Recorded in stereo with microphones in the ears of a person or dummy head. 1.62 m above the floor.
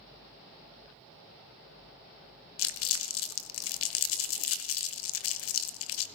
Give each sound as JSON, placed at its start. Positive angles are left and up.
{"t": 2.6, "sound": "crumpling", "side_deg": 70, "distance_m": 0.8}